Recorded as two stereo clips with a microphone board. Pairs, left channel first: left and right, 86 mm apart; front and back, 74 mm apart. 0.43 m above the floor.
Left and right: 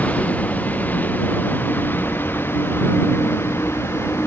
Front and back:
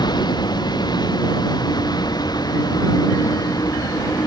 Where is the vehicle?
20° left; by 4.3 s 30° left.